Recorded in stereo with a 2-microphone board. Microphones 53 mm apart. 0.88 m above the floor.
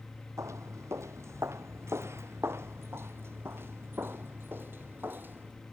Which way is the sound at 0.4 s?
65° right (ahead or behind).